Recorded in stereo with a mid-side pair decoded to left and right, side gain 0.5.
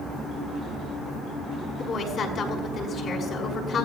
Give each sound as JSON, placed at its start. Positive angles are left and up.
{"t": 1.8, "sound": "a woman speaking", "azimuth_deg": 50, "distance_m": 5.5}